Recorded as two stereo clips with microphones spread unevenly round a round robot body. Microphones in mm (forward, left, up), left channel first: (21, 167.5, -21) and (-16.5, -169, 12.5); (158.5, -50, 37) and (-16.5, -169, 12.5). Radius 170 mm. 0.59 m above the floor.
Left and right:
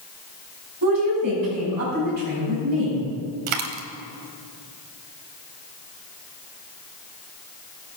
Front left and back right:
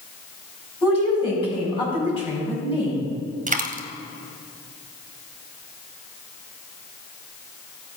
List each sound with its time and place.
0.8 s a woman speaking: 30° right, 4.5 m
3.5 s a dropped coin: 90° right, 1.5 m